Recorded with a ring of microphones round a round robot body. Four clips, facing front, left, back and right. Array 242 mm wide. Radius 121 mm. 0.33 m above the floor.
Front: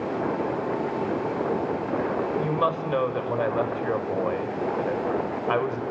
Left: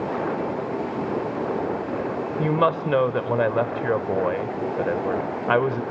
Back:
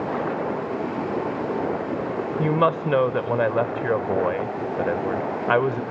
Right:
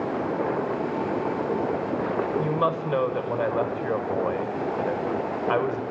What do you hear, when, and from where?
2.4 s a woman speaking: 140° left, 0.9 m